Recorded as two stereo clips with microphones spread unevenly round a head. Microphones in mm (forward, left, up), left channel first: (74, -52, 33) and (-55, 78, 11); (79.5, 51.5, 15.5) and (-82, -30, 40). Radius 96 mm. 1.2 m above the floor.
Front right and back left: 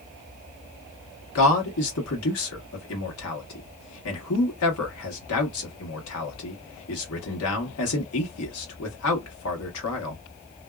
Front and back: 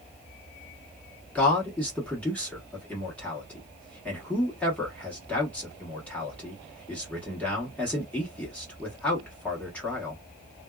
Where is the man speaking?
55° right, 1.2 m.